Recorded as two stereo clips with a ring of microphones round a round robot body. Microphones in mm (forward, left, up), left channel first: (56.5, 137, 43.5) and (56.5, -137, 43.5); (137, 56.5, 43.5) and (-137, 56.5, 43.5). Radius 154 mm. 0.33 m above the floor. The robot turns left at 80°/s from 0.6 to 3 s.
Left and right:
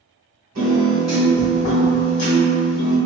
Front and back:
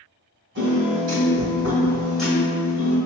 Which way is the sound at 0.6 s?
145° right.